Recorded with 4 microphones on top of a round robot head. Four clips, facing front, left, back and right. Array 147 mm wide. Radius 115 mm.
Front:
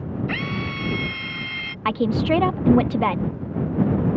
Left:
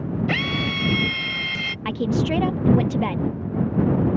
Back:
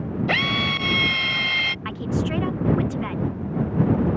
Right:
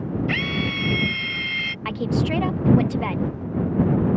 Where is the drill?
170° left.